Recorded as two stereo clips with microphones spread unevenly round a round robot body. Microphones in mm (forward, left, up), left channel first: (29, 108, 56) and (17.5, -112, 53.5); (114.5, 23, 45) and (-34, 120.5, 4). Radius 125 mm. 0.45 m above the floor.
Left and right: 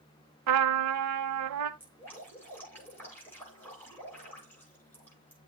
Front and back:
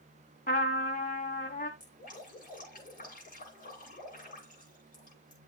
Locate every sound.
0.5 s a trumpet: 95° right, 0.8 m
1.8 s dripping: 5° left, 9 m